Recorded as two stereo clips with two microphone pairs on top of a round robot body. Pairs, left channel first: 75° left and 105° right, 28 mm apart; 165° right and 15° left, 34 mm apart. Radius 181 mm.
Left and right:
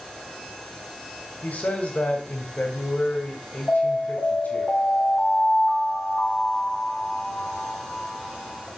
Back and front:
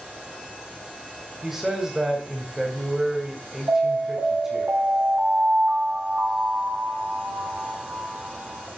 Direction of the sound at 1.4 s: 90° left.